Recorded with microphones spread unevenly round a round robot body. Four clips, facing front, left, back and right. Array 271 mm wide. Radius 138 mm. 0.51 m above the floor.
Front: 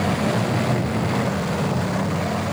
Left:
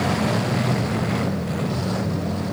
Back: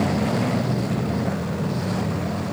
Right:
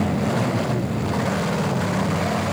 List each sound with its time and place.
Only background noise.